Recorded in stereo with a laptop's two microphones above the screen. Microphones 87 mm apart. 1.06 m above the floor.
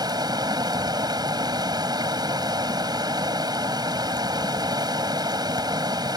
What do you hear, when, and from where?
0.0 s running water: 55° right (ahead or behind)